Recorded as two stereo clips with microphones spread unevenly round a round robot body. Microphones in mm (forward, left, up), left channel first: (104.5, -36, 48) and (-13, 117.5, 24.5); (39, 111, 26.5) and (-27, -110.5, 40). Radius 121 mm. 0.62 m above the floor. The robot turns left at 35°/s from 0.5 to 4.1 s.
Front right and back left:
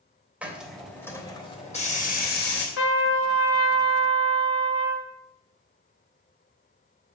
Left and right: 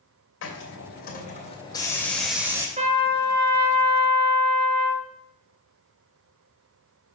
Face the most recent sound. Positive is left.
turn(degrees=-95)